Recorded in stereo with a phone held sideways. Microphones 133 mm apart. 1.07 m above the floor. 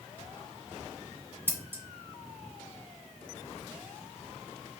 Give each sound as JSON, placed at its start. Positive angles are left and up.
{"t": 1.5, "sound": "scissors", "side_deg": -15, "distance_m": 0.8}